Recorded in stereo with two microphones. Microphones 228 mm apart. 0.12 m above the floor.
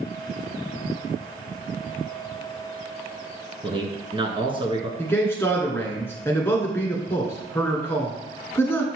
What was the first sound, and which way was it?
A man speaking, 25° right (ahead or behind).